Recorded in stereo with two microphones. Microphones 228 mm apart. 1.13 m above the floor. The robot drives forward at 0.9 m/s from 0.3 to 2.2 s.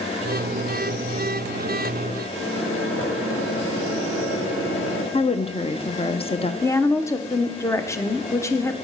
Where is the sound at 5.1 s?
25° left (ahead or behind), 0.6 m.